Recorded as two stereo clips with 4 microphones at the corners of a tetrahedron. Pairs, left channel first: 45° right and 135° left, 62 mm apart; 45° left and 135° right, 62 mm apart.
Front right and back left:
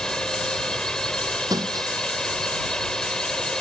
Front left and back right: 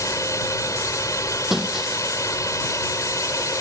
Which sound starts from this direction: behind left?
Breaking glass, at 1.5 s.